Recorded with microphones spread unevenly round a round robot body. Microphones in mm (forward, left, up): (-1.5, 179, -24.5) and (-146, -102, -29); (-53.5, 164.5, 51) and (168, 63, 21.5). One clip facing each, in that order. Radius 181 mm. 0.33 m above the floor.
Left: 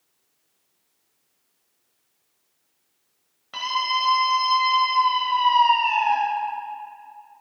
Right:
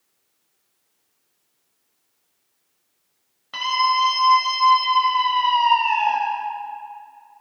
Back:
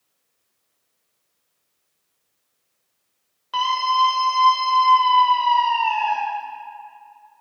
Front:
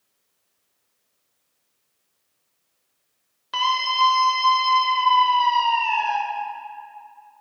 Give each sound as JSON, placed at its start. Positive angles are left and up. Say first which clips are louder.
{"t": 3.5, "sound": "a scream", "louder": "right 5 dB, back 3 dB", "azimuth_deg": -40, "distance_m": 1.4}